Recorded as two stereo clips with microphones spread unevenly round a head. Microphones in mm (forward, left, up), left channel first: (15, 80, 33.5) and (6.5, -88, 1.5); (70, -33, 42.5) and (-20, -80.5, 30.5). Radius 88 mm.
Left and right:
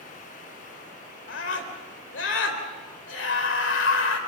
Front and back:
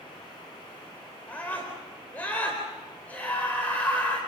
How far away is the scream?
About 4 m.